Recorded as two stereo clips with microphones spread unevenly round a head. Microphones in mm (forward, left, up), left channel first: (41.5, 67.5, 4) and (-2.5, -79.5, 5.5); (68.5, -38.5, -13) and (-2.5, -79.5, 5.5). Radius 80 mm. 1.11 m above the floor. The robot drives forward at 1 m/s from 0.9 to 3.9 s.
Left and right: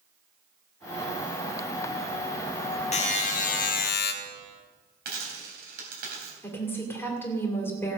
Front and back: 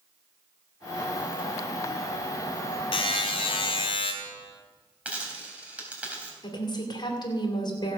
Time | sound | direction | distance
2.9 | a buzzer | 25° left | 1.9 m
5.0 | a dropped coin | 80° right | 3.5 m
6.4 | a woman speaking | 5° right | 2.5 m